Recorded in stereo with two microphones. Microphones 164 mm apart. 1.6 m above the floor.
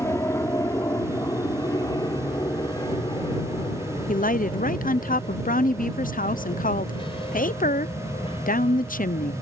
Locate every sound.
0.0 s an aircraft: 15° left (ahead or behind); by 9.4 s 35° left (ahead or behind)
4.1 s a woman speaking: 55° left (ahead or behind)